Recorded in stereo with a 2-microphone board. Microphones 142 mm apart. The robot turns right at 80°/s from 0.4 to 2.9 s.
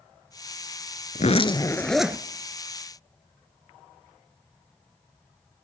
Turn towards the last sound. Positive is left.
turn(degrees=-105)